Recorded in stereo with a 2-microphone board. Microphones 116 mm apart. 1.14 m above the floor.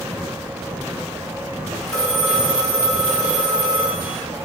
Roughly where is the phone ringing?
Centre.